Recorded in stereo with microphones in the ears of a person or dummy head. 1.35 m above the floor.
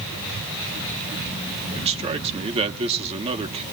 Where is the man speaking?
30° right (ahead or behind), 1.3 m.